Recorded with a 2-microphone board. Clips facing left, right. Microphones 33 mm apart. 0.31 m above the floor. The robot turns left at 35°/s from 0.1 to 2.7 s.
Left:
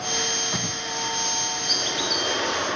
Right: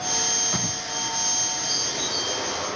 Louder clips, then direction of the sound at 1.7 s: Left 5 dB; 115° left.